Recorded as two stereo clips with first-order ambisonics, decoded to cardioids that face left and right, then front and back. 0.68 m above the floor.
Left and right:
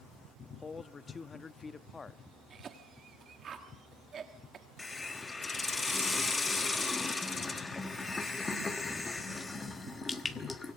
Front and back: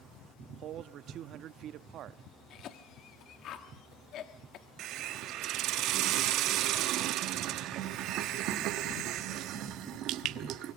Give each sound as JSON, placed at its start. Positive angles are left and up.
{"t": 0.5, "sound": "a man speaking", "azimuth_deg": 160, "distance_m": 0.9}
{"t": 2.5, "sound": "a cough", "azimuth_deg": -35, "distance_m": 1.3}
{"t": 4.8, "sound": "a hiss", "azimuth_deg": 165, "distance_m": 1.1}